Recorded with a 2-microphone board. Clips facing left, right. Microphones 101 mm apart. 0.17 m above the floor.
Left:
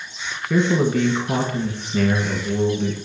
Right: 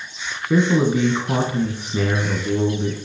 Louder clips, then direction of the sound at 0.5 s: Right 1 dB; 15° right (ahead or behind).